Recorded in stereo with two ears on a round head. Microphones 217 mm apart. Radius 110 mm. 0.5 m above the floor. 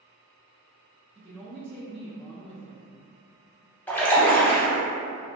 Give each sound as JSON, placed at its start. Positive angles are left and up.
{"t": 1.1, "sound": "a woman speaking", "side_deg": -25, "distance_m": 0.9}
{"t": 3.9, "sound": "a splash", "side_deg": 5, "distance_m": 0.5}